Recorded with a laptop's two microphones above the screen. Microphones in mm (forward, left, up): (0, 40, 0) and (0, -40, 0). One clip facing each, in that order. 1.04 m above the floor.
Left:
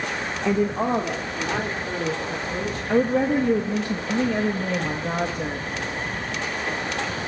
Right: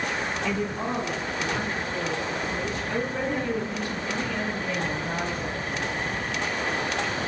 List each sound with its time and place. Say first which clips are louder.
0.5 s a woman speaking: left 11 dB; 30° left (ahead or behind), 0.6 m; by 3.9 s 55° left (ahead or behind), 5.5 m
2.9 s a woman speaking: left 10 dB; 65° left (ahead or behind), 1.1 m